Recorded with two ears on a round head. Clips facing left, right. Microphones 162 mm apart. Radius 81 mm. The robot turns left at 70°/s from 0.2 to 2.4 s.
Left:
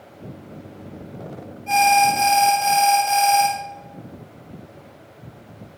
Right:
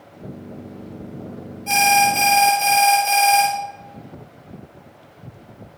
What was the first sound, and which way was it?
An alarm, 100° right.